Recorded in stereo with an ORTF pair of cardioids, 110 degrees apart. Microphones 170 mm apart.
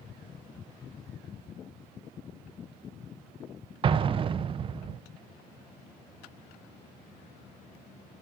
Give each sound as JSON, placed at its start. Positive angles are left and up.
{"t": 3.8, "sound": "an explosion", "azimuth_deg": -30, "distance_m": 0.5}